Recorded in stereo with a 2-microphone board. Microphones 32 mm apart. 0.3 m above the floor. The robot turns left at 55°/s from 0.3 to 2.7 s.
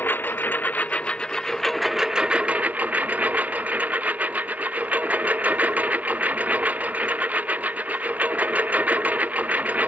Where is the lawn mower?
80° left; by 9.9 s 50° right.